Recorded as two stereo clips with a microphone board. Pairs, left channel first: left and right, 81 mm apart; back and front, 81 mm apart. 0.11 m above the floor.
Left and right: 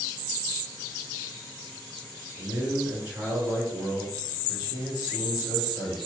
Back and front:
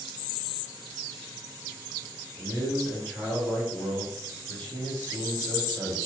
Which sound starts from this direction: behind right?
A man speaking, at 2.4 s.